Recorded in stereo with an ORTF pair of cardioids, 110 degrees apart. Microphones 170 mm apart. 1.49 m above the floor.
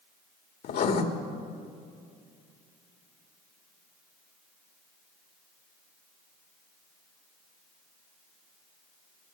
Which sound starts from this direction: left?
Writing, at 0.6 s.